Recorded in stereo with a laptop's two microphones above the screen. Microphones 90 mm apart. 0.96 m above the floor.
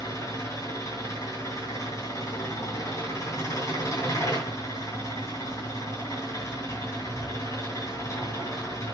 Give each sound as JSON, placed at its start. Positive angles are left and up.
{"t": 0.0, "sound": "an engine running", "side_deg": 40, "distance_m": 3.0}